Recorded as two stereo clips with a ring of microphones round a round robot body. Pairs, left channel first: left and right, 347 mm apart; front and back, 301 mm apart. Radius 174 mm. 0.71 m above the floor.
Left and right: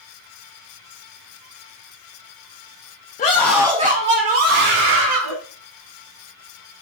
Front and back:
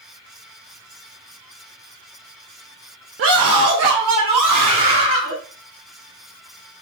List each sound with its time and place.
3.2 s a scream: 150° left, 1.1 m; by 5.4 s 125° right, 3 m